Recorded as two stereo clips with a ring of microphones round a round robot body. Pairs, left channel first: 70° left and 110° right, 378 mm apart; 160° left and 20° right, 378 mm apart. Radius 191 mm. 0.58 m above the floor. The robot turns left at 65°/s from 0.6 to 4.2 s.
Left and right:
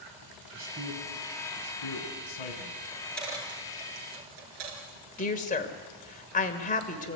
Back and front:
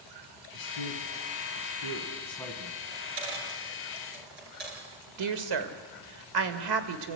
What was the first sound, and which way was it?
A man speaking, 170° right.